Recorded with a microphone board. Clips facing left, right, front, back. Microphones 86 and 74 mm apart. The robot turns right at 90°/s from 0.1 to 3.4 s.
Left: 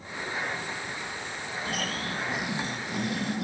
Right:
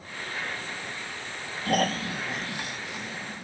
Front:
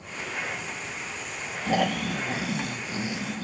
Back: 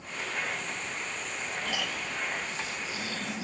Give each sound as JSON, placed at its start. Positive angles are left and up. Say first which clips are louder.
{"t": 1.7, "sound": "snoring", "louder": "right 9 dB, front 14 dB", "azimuth_deg": -60}